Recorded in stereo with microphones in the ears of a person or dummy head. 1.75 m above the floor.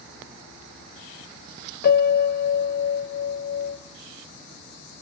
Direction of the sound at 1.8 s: 55° left (ahead or behind).